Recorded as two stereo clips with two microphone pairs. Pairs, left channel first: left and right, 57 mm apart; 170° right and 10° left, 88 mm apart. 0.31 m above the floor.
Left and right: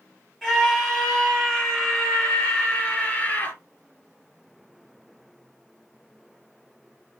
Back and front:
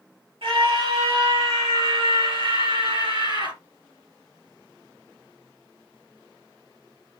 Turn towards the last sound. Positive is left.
turn(degrees=30)